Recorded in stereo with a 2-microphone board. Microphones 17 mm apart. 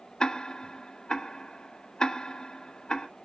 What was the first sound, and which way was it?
Ticking, 60° left (ahead or behind).